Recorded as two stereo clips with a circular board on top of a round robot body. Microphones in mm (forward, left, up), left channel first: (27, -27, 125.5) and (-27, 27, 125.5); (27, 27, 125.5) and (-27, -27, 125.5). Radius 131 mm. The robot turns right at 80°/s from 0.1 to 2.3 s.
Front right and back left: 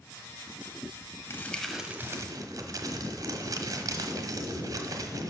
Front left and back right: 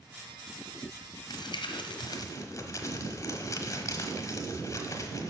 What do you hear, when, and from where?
1.3 s crumpling: 10° left, 0.9 m; by 5.3 s 90° left, 0.9 m